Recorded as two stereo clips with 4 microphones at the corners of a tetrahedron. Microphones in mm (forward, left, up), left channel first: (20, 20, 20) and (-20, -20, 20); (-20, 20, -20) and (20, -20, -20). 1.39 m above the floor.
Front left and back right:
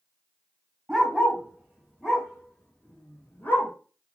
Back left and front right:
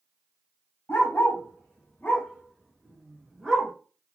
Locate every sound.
0.9 s a dog barking: 160° left, 1.5 m; by 3.7 s 30° left, 1.4 m